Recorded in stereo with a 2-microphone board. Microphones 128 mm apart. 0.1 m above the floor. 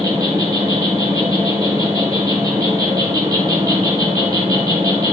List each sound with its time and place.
0.0 s an insect: 25° right (ahead or behind), 2.5 m